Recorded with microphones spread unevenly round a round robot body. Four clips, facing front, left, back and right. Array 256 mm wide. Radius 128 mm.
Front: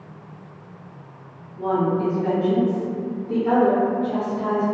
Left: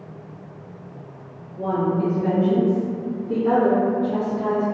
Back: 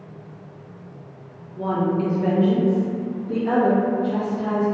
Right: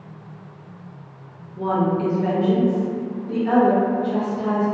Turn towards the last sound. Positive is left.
turn(degrees=85)